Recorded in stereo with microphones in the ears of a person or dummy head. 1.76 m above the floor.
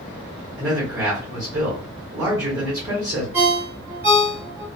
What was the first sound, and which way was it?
A man speaking, 15° right (ahead or behind).